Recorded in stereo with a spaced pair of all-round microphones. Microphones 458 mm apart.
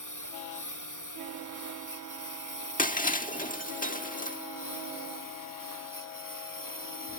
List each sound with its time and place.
0.0 s a lawn mower: 40° left (ahead or behind); by 7.2 s 45° left (ahead or behind)
2.8 s breaking glass: 15° left (ahead or behind)